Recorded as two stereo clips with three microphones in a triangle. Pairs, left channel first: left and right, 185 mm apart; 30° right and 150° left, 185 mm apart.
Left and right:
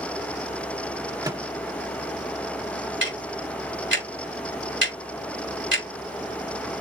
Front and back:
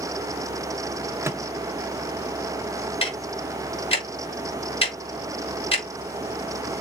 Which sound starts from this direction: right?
Ticking, at 3.0 s.